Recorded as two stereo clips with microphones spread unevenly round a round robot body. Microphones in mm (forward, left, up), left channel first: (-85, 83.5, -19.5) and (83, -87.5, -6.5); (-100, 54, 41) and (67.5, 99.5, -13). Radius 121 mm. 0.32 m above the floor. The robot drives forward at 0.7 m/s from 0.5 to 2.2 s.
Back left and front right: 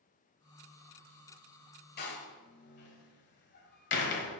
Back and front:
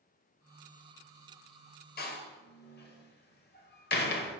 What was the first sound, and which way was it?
A door slam, 160° left.